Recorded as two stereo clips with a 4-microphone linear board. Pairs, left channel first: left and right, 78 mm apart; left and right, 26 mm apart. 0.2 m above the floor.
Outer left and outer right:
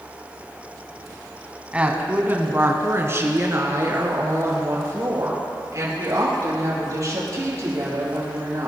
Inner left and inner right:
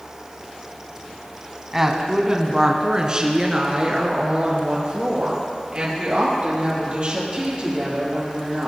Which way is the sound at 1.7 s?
15° right (ahead or behind).